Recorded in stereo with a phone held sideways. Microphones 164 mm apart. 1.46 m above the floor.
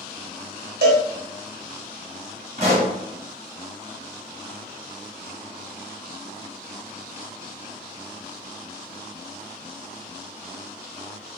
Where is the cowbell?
75° right (ahead or behind), 0.8 m.